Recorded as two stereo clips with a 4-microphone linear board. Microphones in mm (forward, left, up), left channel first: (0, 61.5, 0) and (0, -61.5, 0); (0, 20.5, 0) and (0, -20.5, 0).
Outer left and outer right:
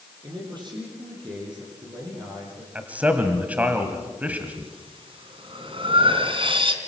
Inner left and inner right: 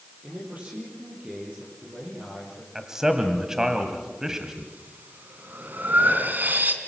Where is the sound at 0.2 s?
40° right (ahead or behind), 7 m.